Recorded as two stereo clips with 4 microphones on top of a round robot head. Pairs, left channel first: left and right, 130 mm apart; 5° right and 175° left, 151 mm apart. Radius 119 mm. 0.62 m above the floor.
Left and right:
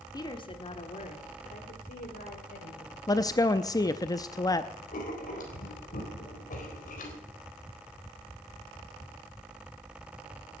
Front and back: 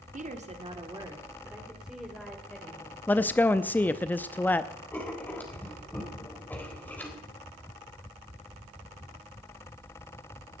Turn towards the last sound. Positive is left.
turn(degrees=75)